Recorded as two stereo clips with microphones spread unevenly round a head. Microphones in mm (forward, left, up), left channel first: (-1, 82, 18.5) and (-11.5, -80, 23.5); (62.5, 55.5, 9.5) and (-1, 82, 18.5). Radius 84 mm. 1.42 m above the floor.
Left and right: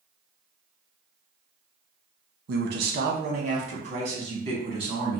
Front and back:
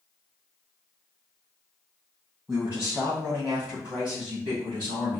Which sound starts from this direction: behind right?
A man speaking, at 2.5 s.